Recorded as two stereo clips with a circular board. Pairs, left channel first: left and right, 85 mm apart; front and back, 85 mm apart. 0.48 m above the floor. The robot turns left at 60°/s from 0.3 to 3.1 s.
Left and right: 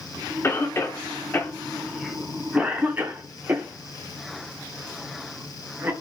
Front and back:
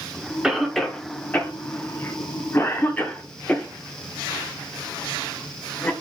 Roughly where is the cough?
Left.